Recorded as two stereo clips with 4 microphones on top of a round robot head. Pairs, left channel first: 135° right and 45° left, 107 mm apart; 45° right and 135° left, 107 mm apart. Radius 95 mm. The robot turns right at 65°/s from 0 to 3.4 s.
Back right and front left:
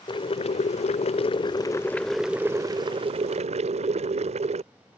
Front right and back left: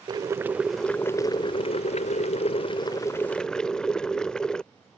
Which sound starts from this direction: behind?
Boiling, at 0.1 s.